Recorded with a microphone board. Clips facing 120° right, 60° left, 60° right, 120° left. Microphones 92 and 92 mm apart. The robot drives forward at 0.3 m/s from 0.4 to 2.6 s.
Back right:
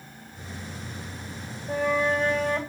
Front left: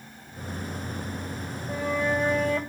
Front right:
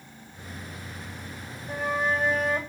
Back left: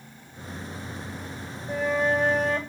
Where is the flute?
145° right, 9.5 m.